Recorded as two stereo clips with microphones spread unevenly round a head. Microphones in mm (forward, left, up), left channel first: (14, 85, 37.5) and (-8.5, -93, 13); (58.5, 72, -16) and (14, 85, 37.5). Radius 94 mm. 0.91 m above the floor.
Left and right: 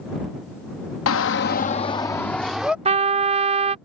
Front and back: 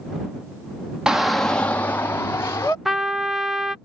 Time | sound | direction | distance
1.1 | a shout | 75° left | ?
2.9 | a trumpet | 55° right | ?